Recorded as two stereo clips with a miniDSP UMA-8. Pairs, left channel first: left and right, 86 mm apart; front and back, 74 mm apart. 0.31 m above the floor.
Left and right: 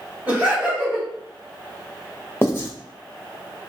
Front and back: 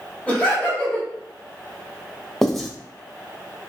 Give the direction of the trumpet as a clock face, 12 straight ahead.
No trumpet in this recording.